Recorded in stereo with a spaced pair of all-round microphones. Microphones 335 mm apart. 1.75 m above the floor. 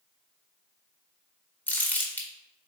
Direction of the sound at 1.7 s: 5° left (ahead or behind).